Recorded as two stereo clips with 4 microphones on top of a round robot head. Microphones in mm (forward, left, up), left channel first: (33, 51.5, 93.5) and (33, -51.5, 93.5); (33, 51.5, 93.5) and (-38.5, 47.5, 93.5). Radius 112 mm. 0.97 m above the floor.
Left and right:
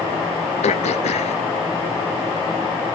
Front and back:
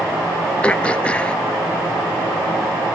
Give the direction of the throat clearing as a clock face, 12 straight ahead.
9 o'clock.